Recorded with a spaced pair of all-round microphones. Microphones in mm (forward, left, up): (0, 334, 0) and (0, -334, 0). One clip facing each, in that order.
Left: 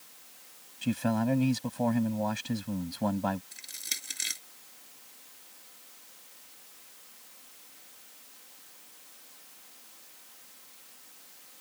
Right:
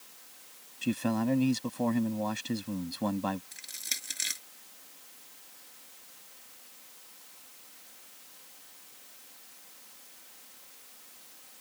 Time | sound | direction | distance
0.8 | a man speaking | 20° left (ahead or behind) | ?
3.5 | crushing | 10° right (ahead or behind) | ?